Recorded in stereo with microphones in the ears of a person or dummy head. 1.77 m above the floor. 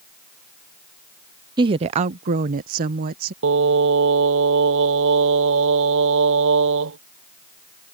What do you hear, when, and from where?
1.6 s a woman speaking: 20° right (ahead or behind); by 3.3 s 45° right (ahead or behind)
3.4 s singing: 70° right (ahead or behind)